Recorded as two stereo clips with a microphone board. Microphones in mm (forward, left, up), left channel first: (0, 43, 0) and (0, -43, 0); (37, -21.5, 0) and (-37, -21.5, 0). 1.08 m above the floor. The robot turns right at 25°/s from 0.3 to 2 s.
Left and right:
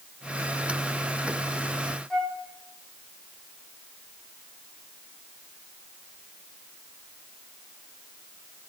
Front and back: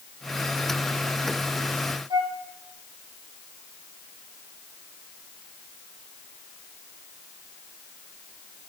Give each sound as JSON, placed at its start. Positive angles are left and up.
{"t": 2.1, "sound": "a flute", "azimuth_deg": 170, "distance_m": 1.8}